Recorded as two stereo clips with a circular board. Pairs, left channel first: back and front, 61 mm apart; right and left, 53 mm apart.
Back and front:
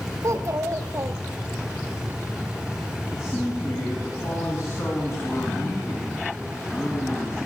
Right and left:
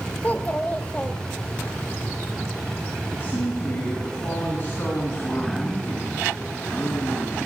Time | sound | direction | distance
0.2 | a child speaking | 25° right | 0.8 m
3.1 | a man speaking | 140° right | 3.5 m